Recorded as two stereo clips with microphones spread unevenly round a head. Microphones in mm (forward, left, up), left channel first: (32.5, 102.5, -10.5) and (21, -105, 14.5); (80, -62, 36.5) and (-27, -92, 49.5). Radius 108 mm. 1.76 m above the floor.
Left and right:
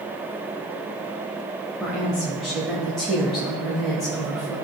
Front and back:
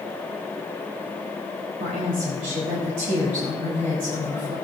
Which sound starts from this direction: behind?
A woman speaking, at 1.8 s.